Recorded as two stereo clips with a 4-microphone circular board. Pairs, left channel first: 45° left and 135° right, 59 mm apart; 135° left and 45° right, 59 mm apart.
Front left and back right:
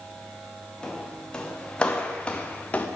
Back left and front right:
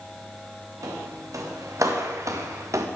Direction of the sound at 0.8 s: 30° right.